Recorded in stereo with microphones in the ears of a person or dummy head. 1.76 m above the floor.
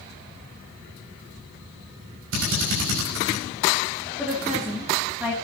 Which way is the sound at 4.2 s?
5° right (ahead or behind).